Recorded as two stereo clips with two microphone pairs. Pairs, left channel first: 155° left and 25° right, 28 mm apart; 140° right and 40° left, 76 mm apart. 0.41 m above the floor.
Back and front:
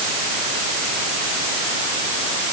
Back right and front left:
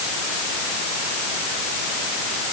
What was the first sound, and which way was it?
Only background noise.